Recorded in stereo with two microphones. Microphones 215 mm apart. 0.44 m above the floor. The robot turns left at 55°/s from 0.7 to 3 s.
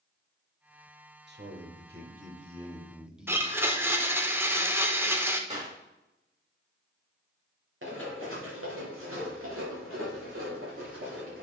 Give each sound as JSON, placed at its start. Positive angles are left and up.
{"t": 1.3, "sound": "a man speaking", "azimuth_deg": -80, "distance_m": 1.3}
{"t": 3.3, "sound": "a blender", "side_deg": -10, "distance_m": 0.8}
{"t": 5.5, "sound": "a clap", "side_deg": -35, "distance_m": 4.0}
{"t": 7.8, "sound": "running footsteps", "side_deg": -70, "distance_m": 4.0}